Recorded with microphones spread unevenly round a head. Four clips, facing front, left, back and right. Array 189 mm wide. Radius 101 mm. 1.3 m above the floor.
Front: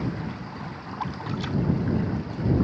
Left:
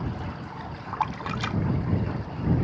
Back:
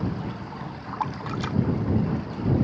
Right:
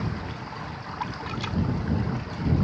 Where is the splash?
160° left.